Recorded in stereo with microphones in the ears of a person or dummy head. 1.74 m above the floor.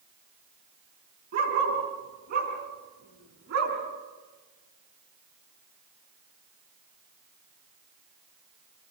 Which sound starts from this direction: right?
A dog barking, at 1.3 s.